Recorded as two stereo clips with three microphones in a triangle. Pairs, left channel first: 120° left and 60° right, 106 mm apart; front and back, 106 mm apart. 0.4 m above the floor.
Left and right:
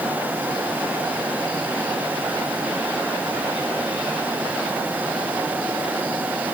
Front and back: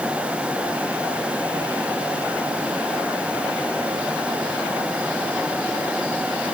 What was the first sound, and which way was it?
Only background noise.